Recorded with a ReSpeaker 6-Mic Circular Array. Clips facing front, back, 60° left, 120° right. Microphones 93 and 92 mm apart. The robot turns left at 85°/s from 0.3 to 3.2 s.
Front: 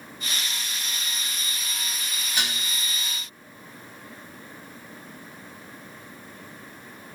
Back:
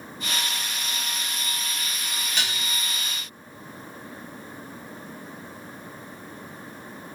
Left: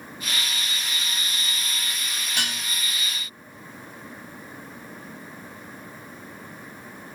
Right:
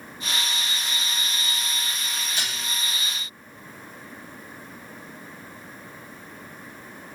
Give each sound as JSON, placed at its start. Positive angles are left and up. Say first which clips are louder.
{"t": 2.4, "sound": "dishes clattering", "louder": "front 1 dB, left 2 dB", "azimuth_deg": 80, "distance_m": 1.9}